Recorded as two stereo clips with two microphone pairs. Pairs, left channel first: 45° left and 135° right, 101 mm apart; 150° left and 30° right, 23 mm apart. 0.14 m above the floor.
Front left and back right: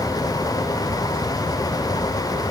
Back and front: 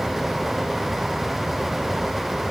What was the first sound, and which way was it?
Only background noise.